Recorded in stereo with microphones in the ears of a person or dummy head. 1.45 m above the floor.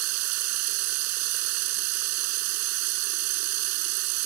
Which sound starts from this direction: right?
Running water, at 0.0 s.